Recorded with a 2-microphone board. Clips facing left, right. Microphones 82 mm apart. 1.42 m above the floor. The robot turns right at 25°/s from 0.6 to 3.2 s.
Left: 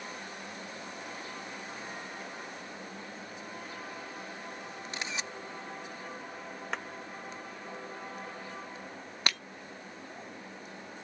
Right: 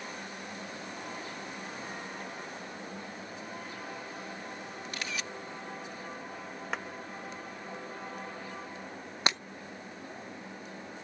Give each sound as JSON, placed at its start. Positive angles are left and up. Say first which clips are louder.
{"t": 4.9, "sound": "a camera shutter", "louder": "left 1 dB", "side_deg": 25}
{"t": 6.7, "sound": "a clap", "louder": "right 1 dB", "side_deg": 0}
{"t": 9.3, "sound": "breaking glass", "louder": "right 3 dB", "side_deg": -20}